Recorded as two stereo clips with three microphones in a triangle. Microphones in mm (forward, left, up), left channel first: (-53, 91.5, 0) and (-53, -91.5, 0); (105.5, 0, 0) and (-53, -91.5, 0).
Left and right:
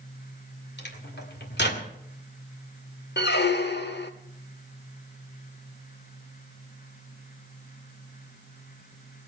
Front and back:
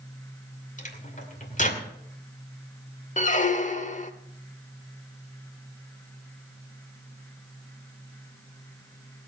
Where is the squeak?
75° left, 0.9 m.